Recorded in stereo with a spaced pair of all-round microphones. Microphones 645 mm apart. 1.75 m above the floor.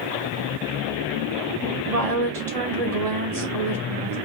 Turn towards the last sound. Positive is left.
turn(degrees=-65)  # may be behind; listen again after turning